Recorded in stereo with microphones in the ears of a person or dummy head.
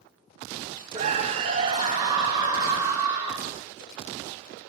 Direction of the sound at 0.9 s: 40° right (ahead or behind).